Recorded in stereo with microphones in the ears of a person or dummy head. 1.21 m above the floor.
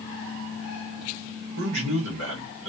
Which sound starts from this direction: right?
A man speaking, at 1.6 s.